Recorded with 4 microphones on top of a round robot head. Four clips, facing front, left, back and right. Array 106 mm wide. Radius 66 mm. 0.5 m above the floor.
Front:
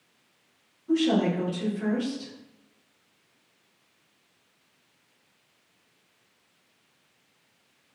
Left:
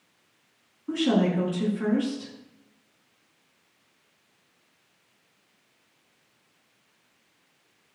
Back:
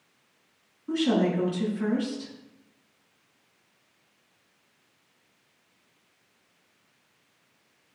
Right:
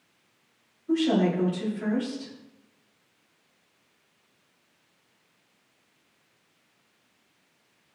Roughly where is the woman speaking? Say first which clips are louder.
Even, front 1 dB; behind left.